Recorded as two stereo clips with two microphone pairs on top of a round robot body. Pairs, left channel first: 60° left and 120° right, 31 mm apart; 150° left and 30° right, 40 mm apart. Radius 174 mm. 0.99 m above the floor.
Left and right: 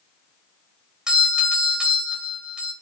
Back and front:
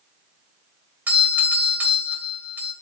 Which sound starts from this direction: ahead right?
A doorbell, at 1.1 s.